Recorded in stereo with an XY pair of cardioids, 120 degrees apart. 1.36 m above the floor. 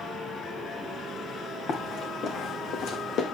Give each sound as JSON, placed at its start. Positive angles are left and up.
{"t": 1.7, "sound": "running footsteps", "azimuth_deg": 55, "distance_m": 7.5}